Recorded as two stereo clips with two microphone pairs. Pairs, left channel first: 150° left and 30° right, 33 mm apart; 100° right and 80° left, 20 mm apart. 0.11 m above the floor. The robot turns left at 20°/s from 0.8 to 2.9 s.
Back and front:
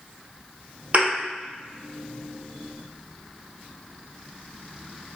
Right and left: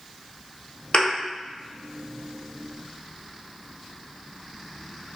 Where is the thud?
60° right, 1.2 m; by 1.1 s 65° right, 1.2 m.